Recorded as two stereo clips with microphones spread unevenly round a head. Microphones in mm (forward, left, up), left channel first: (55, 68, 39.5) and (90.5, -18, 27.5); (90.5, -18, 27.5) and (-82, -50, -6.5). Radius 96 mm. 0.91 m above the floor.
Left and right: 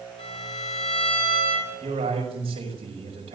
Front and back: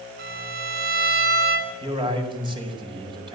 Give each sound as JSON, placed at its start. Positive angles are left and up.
{"t": 0.2, "sound": "a violin", "azimuth_deg": 155, "distance_m": 3.0}
{"t": 1.8, "sound": "a man speaking", "azimuth_deg": -110, "distance_m": 5.5}